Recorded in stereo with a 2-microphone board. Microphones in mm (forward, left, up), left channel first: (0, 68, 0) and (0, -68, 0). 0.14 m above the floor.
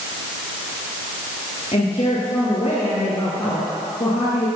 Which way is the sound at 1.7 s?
50° left (ahead or behind).